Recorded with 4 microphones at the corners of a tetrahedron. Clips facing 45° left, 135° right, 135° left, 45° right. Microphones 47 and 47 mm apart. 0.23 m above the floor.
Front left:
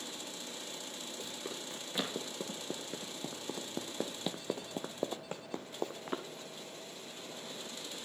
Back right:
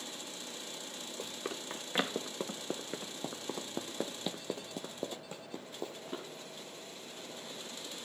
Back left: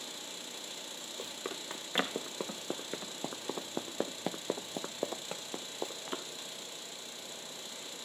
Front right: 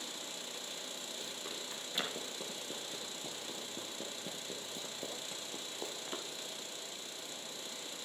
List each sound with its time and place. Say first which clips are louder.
1.2 s running footsteps: back right 4 dB, back left 7 dB; 175° right, 1.8 m; by 6.2 s 65° left, 1.1 m